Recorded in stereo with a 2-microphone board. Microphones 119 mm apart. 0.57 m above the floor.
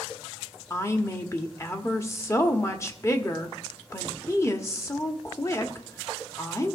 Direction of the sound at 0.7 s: 25° left (ahead or behind).